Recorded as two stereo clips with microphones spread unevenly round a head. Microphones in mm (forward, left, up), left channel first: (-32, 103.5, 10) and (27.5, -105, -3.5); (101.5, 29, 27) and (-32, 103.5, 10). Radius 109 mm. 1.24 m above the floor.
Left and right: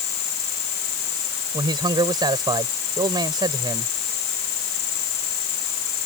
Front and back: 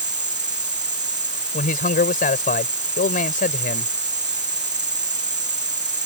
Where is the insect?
110° left.